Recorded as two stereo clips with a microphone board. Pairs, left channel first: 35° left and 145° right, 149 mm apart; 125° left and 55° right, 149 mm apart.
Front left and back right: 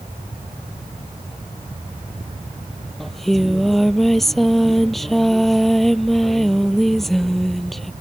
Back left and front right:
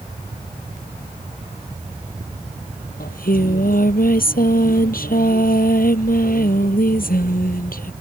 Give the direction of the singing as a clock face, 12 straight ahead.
8 o'clock.